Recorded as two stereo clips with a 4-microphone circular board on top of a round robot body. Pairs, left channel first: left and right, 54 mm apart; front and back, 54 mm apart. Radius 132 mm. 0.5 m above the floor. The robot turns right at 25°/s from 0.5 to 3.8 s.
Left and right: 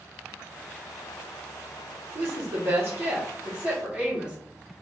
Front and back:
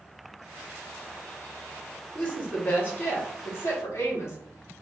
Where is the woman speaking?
60° right, 1.9 m; by 4.4 s 20° right, 1.9 m.